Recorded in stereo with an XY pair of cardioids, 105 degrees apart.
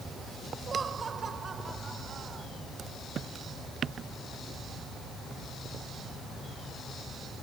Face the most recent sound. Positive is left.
turn(degrees=-40)